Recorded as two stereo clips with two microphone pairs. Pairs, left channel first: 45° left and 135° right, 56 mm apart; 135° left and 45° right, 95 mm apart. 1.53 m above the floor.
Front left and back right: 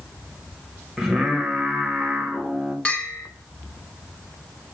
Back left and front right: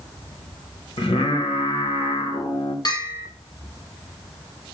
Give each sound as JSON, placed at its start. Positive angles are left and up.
{"t": 1.0, "sound": "singing", "azimuth_deg": 145, "distance_m": 1.0}
{"t": 2.9, "sound": "a bell", "azimuth_deg": 110, "distance_m": 1.3}